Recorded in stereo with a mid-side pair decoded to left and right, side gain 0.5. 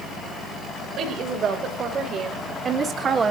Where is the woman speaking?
60° right, 4.5 m; by 3.3 s 40° right, 2.5 m.